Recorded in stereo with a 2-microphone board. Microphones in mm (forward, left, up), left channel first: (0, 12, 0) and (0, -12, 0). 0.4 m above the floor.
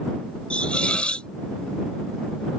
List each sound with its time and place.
0.5 s a hiss: 55° left (ahead or behind)